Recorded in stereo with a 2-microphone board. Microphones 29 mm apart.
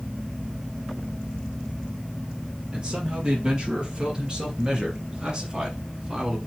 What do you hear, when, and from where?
2.7 s a man speaking: 30° right (ahead or behind), 3.5 m; by 6.4 s 25° right (ahead or behind), 1.7 m